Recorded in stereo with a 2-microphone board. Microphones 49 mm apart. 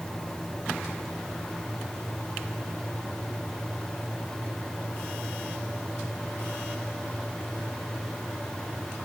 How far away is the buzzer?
No buzzer in this recording.